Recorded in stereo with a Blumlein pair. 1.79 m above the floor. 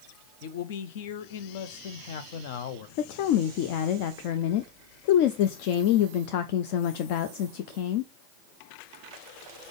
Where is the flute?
No flute in this recording.